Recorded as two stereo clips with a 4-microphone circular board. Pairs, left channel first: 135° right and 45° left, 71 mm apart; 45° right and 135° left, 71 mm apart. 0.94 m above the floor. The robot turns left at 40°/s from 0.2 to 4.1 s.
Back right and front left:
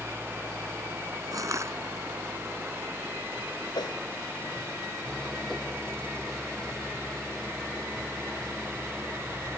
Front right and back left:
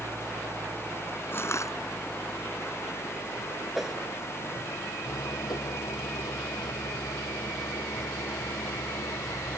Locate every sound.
0.0 s an engine running: 105° left; by 9.6 s 50° right
1.3 s crushing: 10° left; by 1.7 s 5° right
3.8 s a whoosh: 135° right; by 4.0 s 145° right